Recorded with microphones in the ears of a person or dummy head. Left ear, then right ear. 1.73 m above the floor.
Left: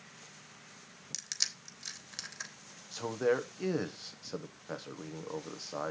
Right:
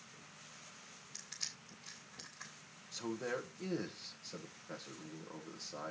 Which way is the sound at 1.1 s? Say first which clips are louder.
Left 10 dB; 65° left (ahead or behind).